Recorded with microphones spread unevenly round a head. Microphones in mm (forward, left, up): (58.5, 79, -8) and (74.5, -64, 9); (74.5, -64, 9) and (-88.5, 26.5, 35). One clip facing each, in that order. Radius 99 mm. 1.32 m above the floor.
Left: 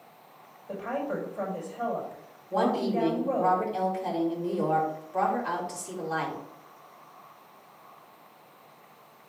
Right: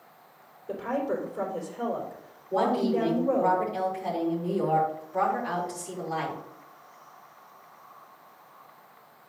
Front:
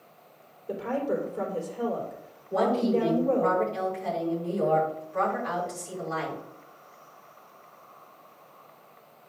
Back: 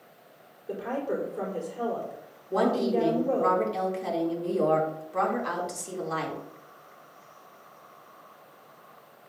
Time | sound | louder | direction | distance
0.7 | a woman speaking | right 3 dB, front 2 dB | 125° right | 4.5 m
2.5 | a woman speaking | right 1 dB, even | 170° right | 3 m